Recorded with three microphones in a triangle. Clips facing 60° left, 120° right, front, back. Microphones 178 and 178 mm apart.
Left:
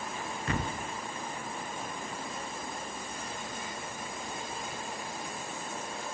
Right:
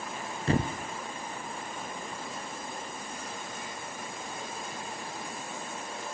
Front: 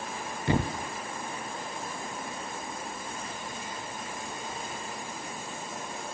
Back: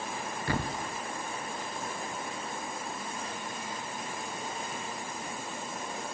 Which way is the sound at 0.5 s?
65° right.